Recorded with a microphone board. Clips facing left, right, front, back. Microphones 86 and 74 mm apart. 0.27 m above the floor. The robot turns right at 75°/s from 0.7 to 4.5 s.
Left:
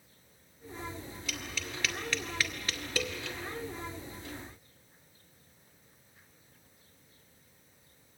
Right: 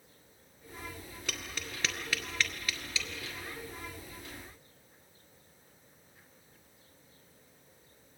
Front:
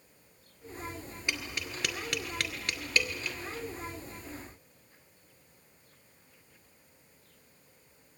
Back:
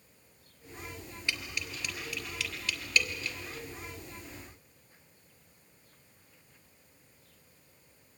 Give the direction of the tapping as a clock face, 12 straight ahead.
2 o'clock.